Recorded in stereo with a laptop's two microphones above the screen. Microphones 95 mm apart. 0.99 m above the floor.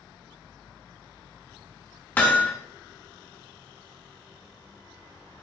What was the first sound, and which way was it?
Hammering, 20° left (ahead or behind).